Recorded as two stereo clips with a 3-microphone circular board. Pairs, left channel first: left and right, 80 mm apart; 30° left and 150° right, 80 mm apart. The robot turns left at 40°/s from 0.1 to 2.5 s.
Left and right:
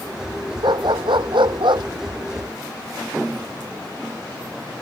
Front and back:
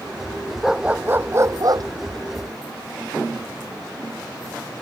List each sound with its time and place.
0.6 s a dog barking: 65° right; by 1.9 s 115° right